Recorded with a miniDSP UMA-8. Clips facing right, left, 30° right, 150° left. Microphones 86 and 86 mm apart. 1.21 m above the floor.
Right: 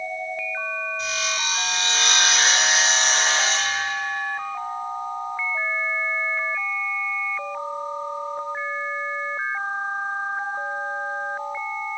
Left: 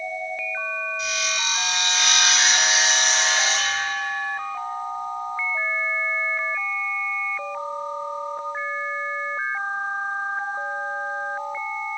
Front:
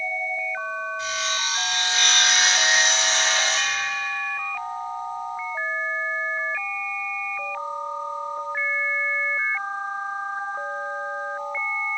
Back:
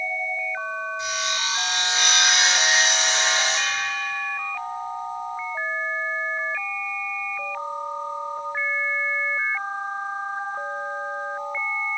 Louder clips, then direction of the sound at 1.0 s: Even, even; 140° right.